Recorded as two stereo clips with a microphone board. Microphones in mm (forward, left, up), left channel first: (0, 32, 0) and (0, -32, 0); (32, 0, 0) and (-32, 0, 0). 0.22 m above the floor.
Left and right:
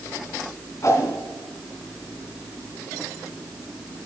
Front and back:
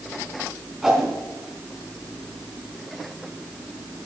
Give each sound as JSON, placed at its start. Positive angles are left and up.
{"t": 0.8, "sound": "a whoosh", "azimuth_deg": 100, "distance_m": 2.5}